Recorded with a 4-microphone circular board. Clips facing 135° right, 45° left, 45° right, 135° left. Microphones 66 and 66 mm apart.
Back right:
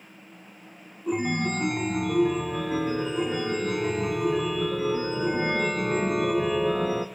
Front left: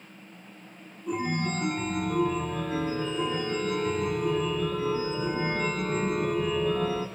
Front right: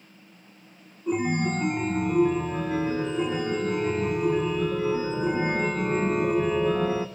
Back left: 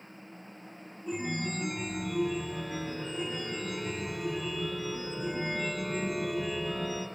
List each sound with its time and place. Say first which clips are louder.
1.1 s a chime: back right 3 dB, front right 9 dB; 95° right, 2.5 m